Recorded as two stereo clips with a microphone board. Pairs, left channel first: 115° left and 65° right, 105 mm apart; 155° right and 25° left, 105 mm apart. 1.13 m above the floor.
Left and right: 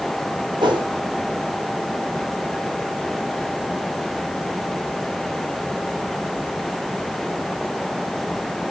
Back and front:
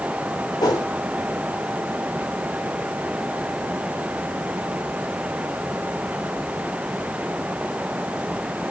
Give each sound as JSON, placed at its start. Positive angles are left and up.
{"t": 0.6, "sound": "a whoosh", "azimuth_deg": -105, "distance_m": 4.0}